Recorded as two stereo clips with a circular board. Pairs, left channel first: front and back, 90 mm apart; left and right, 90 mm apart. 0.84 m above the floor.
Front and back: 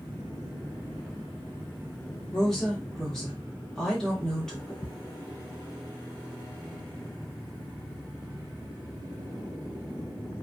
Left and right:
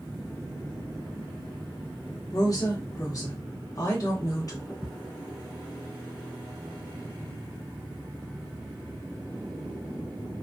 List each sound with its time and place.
2.3 s a woman speaking: 85° left, 1.2 m
4.8 s ticking: 50° left, 1.4 m